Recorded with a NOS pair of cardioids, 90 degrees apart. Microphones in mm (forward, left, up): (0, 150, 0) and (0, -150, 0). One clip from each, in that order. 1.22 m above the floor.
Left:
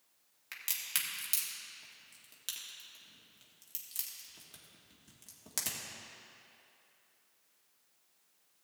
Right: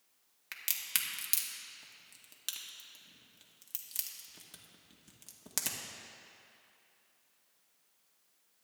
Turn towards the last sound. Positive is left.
turn(degrees=-20)